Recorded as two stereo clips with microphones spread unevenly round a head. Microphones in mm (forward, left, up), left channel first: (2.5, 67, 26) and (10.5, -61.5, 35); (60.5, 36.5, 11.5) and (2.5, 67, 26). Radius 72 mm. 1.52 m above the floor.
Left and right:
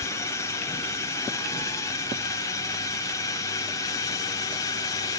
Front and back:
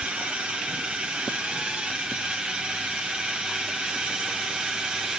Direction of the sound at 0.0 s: 80° left.